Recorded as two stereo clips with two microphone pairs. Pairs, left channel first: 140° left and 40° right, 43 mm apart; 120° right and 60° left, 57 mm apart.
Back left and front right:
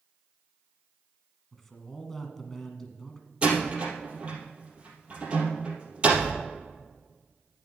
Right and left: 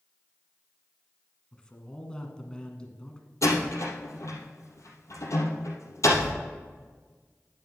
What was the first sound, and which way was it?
A man speaking, 155° right.